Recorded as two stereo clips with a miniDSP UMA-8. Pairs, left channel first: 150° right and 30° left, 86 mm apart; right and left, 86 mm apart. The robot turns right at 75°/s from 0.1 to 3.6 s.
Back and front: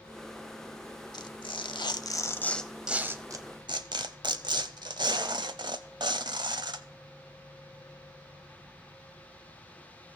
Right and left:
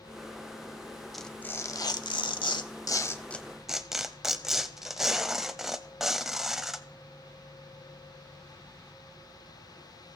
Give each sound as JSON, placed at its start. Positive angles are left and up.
{"t": 1.1, "sound": "tearing paper", "azimuth_deg": 180, "distance_m": 0.8}